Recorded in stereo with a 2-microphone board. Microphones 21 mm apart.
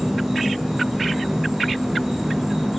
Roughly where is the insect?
Centre.